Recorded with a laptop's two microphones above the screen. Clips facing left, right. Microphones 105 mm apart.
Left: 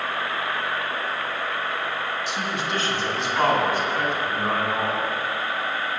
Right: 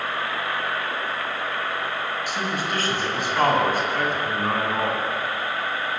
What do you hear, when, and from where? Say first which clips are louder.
2.3 s a man speaking: right 1 dB; 50° right (ahead or behind), 7 m